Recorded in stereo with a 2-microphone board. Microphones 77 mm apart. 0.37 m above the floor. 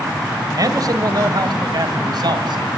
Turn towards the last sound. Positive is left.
turn(degrees=-65)  # may be behind; listen again after turning